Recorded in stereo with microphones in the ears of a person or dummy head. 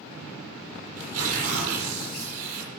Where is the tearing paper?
50° right (ahead or behind), 7.5 m.